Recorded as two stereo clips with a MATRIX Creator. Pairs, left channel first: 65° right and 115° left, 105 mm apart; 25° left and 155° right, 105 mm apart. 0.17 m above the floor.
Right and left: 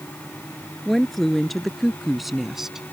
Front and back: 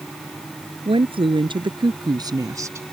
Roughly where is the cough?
I don't hear a cough.